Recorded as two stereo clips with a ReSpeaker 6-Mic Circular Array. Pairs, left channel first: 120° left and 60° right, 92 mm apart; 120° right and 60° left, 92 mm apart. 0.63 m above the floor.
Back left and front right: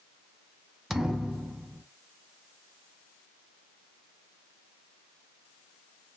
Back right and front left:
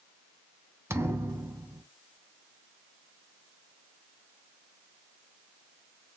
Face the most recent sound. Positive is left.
turn(degrees=25)